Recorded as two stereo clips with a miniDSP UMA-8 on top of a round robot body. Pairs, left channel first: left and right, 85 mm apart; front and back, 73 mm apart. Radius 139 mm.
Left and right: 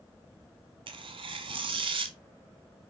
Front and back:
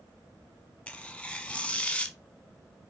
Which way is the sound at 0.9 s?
75° right.